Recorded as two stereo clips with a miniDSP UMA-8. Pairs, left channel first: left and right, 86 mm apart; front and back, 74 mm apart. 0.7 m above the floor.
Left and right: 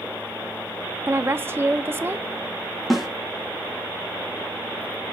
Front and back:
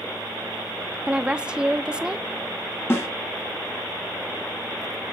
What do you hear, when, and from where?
1.1 s a woman speaking: 115° right, 0.5 m
2.9 s a snare drum: 5° left, 1.1 m